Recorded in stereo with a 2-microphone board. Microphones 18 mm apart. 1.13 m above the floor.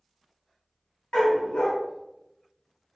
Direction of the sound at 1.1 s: 70° left (ahead or behind).